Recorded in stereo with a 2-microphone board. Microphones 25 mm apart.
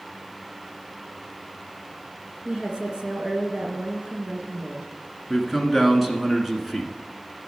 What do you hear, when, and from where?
2.5 s a woman speaking: 35° right (ahead or behind), 1.8 m
5.3 s a man speaking: 5° right (ahead or behind), 1.3 m